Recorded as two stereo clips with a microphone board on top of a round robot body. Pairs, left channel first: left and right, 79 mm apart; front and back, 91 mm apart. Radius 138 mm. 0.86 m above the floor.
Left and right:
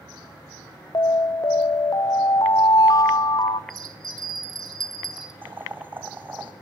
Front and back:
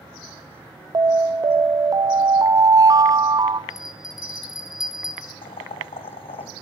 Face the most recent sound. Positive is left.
turn(degrees=-25)